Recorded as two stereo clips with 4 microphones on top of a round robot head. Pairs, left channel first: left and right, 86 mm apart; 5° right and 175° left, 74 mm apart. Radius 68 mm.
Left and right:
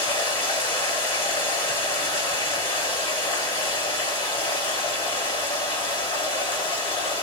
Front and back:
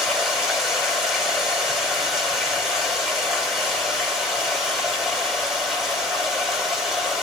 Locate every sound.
0.0 s running water: 95° left, 5 m